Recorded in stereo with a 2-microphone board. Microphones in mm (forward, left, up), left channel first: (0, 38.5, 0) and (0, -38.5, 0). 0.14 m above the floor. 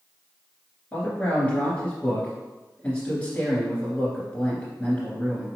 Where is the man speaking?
15° left (ahead or behind), 2.0 m.